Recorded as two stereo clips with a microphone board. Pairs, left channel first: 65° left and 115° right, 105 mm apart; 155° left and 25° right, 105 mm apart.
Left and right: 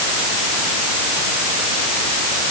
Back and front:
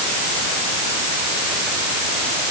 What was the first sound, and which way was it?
Only background noise.